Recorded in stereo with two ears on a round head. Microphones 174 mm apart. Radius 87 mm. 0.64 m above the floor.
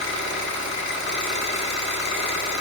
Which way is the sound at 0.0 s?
65° left (ahead or behind).